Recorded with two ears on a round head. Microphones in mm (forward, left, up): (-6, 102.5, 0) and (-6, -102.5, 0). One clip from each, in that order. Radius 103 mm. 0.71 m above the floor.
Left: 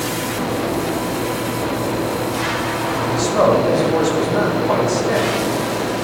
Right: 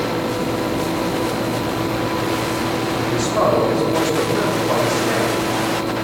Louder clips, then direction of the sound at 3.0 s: Left 3 dB; 15° left (ahead or behind).